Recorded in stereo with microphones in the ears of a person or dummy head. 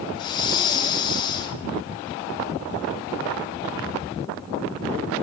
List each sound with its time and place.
0.1 s breathing: 30° left (ahead or behind), 3 m